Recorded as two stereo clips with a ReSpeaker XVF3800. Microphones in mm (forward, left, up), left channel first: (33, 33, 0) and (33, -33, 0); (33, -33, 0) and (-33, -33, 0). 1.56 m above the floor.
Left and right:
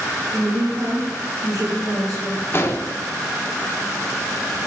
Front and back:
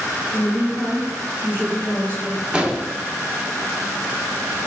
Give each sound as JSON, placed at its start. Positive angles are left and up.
{"t": 0.3, "sound": "a woman speaking", "azimuth_deg": -70, "distance_m": 3.5}
{"t": 2.5, "sound": "an explosion", "azimuth_deg": 115, "distance_m": 0.8}